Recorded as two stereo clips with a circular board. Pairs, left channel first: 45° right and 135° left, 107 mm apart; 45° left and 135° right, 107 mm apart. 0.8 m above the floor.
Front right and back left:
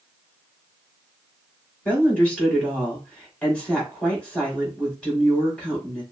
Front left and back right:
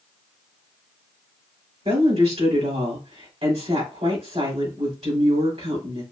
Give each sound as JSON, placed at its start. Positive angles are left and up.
{"t": 1.9, "sound": "a woman speaking", "azimuth_deg": -125, "distance_m": 3.0}